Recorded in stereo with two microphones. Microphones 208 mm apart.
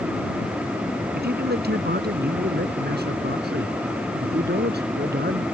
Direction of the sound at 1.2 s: 50° right (ahead or behind).